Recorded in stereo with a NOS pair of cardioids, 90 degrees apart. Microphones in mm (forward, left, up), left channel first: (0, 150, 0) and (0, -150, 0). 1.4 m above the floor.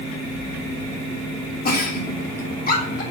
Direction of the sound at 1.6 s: 30° left.